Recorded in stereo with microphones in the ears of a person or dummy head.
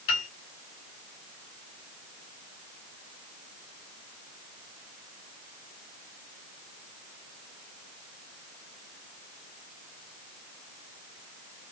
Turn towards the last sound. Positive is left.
turn(degrees=35)  # may be behind; listen again after turning